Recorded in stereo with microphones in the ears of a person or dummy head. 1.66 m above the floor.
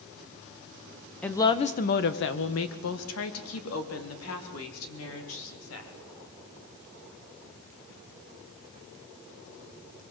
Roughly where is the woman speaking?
Centre.